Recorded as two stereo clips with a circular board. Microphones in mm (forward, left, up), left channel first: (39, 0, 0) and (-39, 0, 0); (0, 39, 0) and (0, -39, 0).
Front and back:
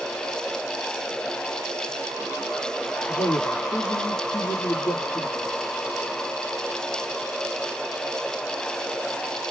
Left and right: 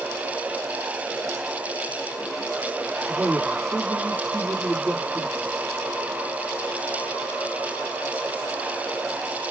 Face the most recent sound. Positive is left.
turn(degrees=5)